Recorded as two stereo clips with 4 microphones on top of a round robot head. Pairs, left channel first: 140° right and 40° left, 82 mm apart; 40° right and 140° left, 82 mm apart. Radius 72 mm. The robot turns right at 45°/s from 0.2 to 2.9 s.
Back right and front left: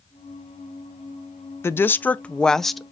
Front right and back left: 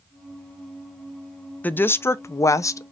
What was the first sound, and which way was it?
A woman speaking, 100° right.